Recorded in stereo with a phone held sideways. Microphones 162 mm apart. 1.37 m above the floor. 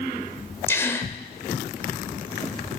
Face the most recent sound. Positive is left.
turn(degrees=15)  # may be behind; listen again after turning